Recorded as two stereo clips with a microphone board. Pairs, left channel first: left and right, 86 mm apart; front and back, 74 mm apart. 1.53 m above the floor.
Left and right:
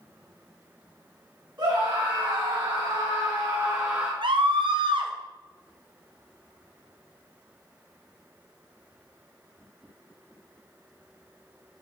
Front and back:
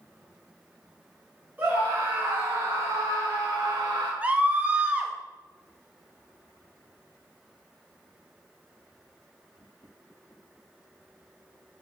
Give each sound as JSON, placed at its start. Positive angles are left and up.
{"t": 1.6, "sound": "a scream", "azimuth_deg": -110, "distance_m": 2.5}
{"t": 4.2, "sound": "a scream", "azimuth_deg": -110, "distance_m": 1.0}